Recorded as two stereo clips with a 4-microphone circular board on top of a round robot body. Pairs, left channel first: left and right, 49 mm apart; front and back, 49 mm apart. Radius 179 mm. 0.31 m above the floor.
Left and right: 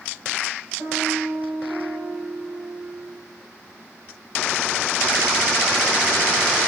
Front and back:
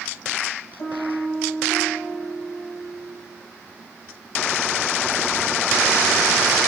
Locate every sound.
0.8 s a piano: 35° right, 3.5 m